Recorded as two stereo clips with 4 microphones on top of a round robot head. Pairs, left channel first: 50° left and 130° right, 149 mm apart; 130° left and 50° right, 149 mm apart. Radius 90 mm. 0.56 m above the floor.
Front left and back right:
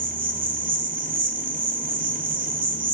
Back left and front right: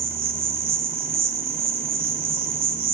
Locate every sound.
0.0 s an insect: 75° right, 2.5 m